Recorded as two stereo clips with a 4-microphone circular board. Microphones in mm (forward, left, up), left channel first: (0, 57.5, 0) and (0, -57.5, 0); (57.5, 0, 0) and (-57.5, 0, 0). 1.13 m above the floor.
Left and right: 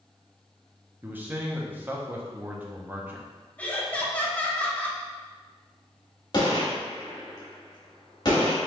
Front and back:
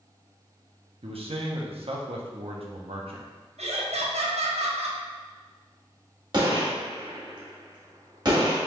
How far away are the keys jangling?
No keys jangling in this recording.